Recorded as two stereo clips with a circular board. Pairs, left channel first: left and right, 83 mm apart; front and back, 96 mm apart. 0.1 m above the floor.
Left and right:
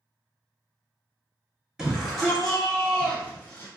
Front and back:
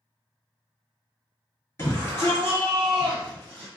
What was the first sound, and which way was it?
A shout, 15° right.